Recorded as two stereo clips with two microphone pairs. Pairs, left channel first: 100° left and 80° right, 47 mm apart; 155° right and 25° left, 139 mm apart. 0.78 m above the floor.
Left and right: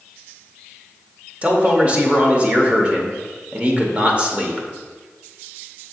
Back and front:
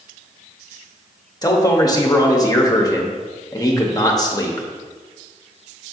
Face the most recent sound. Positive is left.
turn(degrees=-115)